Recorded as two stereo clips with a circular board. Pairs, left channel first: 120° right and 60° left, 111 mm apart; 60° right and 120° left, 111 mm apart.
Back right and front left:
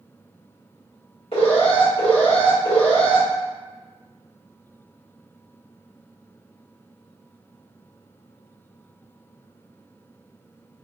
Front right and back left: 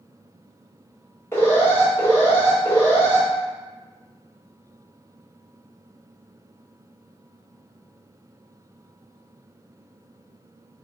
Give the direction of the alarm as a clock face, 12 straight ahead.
4 o'clock.